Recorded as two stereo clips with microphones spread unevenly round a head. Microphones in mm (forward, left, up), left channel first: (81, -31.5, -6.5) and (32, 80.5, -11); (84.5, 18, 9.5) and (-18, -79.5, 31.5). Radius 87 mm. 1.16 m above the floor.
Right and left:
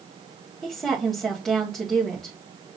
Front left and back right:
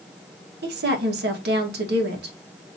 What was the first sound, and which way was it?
A woman speaking, 155° right.